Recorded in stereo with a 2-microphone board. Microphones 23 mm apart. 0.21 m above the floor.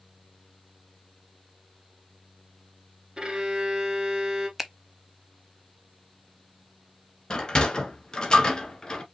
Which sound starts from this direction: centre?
A finger snap, at 4.6 s.